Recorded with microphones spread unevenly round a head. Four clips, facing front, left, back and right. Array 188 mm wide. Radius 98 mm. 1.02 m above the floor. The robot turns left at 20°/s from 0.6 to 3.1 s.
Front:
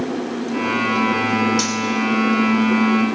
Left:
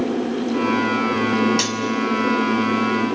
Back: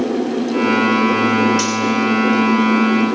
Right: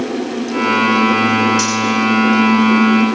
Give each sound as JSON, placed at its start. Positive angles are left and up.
{"t": 1.6, "sound": "cutlery clinking", "azimuth_deg": 40, "distance_m": 5.0}